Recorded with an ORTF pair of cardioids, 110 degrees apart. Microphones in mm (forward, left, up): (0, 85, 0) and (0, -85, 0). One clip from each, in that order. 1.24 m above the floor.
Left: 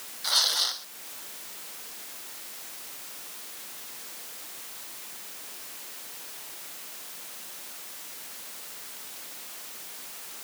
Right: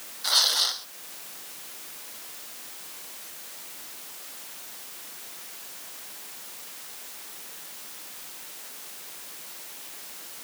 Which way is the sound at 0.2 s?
15° right.